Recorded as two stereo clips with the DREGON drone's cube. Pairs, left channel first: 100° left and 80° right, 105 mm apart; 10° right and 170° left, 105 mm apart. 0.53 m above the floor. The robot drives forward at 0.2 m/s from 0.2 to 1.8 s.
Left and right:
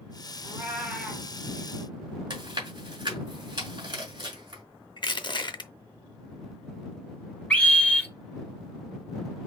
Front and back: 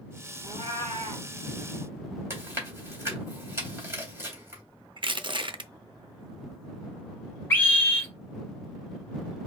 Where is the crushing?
140° left, 0.6 m.